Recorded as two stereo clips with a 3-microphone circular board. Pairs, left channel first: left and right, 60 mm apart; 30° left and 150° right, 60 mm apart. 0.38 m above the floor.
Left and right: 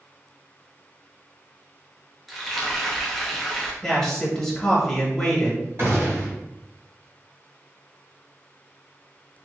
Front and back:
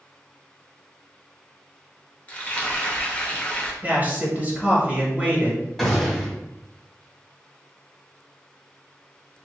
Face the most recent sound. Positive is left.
turn(degrees=-60)